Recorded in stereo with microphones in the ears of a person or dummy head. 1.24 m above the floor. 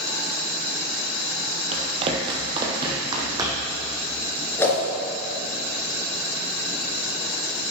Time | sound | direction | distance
1.7 | running footsteps | 35° right (ahead or behind) | 1.5 m
4.6 | a whoosh | 15° left (ahead or behind) | 3 m